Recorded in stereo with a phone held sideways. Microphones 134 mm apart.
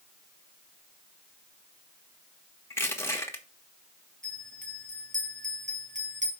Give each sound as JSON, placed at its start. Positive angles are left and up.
{"t": 2.7, "sound": "crushing", "side_deg": 20, "distance_m": 1.5}
{"t": 4.2, "sound": "a bell", "side_deg": -70, "distance_m": 2.5}